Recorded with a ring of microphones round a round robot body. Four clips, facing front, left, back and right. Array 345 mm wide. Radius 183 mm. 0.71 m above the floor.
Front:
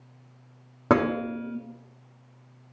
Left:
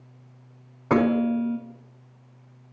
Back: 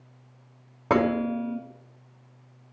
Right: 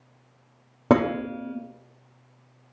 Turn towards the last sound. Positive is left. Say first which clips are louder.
# left 1 dB, even
turn(degrees=-70)